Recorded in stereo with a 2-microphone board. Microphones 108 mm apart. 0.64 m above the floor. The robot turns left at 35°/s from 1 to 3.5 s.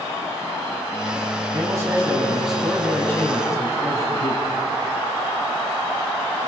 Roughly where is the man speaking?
Behind right.